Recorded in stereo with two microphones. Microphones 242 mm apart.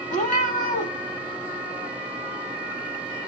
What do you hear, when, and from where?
0.1 s a cat meowing: 30° left (ahead or behind), 0.7 m